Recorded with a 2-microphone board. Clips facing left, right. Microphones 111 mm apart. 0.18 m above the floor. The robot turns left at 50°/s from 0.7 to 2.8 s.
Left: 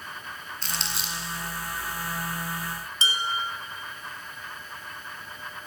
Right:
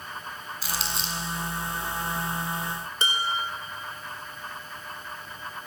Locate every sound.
0.6 s crumpling: 5° right (ahead or behind), 1.6 m; by 1.2 s 15° left (ahead or behind), 1.6 m
3.0 s dishes clattering: 55° right (ahead or behind), 1.4 m